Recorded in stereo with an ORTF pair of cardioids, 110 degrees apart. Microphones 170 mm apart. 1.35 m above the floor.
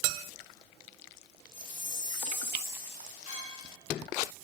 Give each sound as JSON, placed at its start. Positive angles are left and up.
{"t": 1.5, "sound": "a chime", "azimuth_deg": 45, "distance_m": 1.7}
{"t": 3.3, "sound": "a clink", "azimuth_deg": 55, "distance_m": 3.0}